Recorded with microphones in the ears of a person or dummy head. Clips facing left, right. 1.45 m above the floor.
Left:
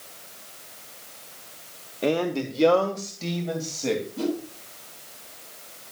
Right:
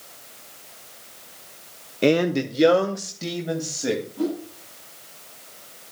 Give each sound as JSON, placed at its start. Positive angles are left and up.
{"t": 2.0, "sound": "a man speaking", "side_deg": -30, "distance_m": 0.8}
{"t": 4.2, "sound": "a whoosh", "side_deg": 35, "distance_m": 7.5}